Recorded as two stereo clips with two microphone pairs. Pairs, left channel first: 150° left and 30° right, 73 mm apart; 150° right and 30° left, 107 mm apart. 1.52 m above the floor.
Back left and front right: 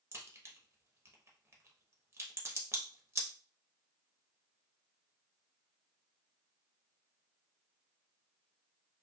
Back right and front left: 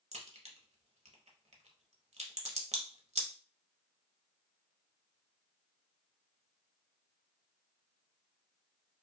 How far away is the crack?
About 0.9 m.